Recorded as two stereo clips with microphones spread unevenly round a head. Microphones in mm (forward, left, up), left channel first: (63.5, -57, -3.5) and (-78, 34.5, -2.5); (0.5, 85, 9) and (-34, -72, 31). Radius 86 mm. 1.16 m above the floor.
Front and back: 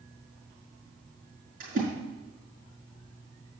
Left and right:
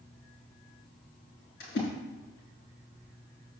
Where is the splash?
100° left, 5.5 m.